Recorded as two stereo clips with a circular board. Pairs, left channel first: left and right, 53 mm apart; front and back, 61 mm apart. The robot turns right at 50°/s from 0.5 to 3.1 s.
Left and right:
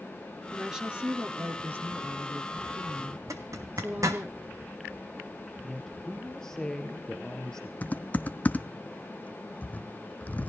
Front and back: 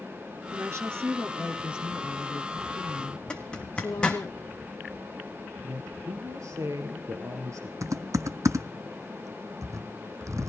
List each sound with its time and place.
0.5 s a woman speaking: 175° right, 1.7 m; by 4.3 s 45° right, 1.7 m
3.3 s a zipper: 75° right, 1.6 m
5.6 s a woman speaking: 165° left, 2.5 m
7.8 s typing on a keyboard: 150° left, 1.0 m